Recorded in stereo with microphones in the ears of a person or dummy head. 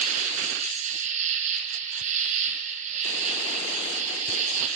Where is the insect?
40° right (ahead or behind), 4.5 m.